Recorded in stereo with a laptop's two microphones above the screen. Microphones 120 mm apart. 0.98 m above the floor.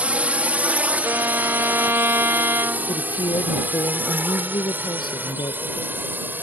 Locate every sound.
0.0 s a drone: 10° right (ahead or behind); by 6.4 s 15° right (ahead or behind)
1.0 s a violin: 20° right (ahead or behind)
2.9 s a woman speaking: 40° left (ahead or behind)